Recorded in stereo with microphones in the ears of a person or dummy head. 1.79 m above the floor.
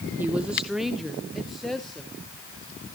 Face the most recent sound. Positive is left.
turn(degrees=0)  # may be behind; listen again after turning